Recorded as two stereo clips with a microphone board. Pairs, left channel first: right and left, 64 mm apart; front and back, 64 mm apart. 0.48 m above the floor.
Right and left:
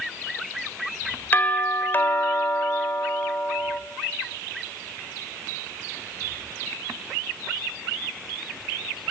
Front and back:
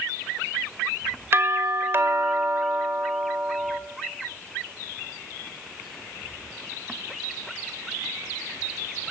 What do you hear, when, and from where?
1.3 s a doorbell: 140° right, 1.9 m